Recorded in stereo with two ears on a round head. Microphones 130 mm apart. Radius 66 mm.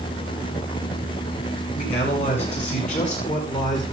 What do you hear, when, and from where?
1.7 s a man speaking: 45° left (ahead or behind), 9 m; by 3.8 s 55° left (ahead or behind), 9.5 m